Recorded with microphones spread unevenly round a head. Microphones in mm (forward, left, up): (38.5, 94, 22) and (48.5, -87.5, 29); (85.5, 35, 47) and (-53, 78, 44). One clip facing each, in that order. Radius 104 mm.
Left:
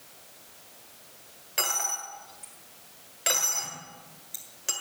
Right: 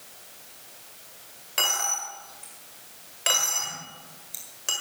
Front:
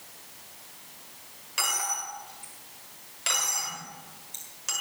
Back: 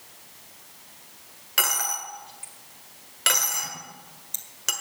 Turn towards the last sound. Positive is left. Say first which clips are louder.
# right 2 dB, back 2 dB
turn(degrees=180)